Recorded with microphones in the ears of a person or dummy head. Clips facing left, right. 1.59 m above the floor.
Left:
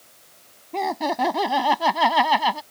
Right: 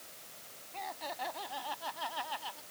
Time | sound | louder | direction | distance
0.7 | laughter | left 18 dB | 70° left (ahead or behind) | ?